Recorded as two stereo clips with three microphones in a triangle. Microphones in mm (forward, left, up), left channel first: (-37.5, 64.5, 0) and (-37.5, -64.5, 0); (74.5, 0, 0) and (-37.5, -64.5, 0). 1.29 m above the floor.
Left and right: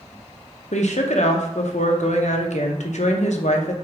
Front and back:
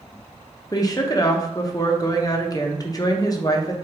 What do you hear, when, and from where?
0.7 s a woman speaking: 85° left, 0.7 m